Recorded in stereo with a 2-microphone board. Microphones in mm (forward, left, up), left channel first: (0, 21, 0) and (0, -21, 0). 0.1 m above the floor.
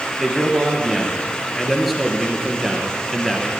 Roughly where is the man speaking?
Centre.